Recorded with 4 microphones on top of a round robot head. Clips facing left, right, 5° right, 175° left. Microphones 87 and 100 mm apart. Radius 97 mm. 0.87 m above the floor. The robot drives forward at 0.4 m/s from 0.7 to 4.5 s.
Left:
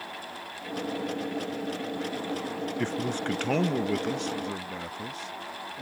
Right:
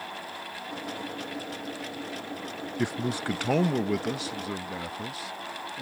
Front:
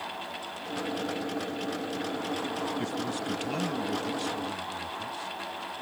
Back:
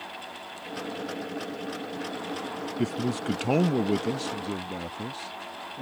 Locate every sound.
2.8 s a man speaking: 165° right; by 5.8 s 175° right